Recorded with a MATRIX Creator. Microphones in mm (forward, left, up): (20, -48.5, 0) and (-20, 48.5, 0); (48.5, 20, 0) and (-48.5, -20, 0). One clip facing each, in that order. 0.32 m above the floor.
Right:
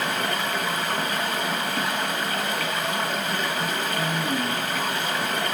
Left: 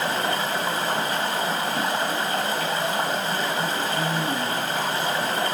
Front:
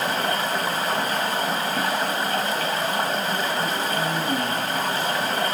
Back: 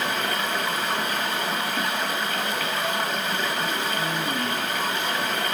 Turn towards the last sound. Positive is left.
turn(degrees=65)